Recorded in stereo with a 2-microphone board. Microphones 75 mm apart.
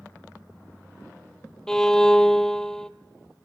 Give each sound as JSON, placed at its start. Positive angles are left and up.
{"t": 1.7, "sound": "a violin", "side_deg": 5, "distance_m": 0.9}